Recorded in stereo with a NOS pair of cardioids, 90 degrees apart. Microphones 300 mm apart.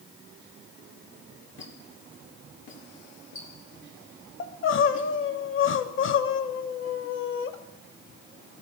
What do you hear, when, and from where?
1.6 s a squeak: 40° left, 2.0 m
4.4 s crying: 40° left, 0.6 m